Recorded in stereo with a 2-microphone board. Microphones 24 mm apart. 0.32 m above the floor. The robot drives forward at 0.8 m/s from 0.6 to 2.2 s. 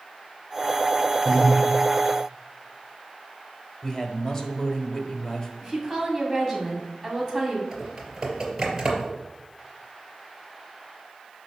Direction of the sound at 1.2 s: Centre (ahead or behind).